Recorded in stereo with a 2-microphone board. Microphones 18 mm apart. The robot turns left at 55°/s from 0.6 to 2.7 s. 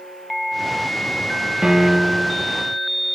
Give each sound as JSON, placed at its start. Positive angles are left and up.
{"t": 1.6, "sound": "a piano", "azimuth_deg": -150, "distance_m": 2.5}